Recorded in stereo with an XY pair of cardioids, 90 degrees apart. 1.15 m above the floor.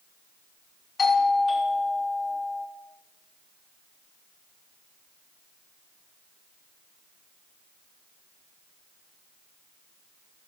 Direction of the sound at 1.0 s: 45° left.